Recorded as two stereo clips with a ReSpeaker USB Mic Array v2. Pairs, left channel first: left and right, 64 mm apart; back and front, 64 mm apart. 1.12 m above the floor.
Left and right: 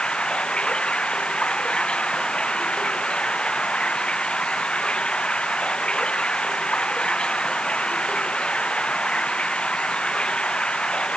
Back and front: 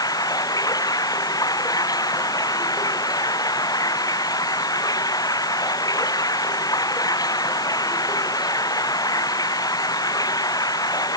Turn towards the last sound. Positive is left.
turn(degrees=165)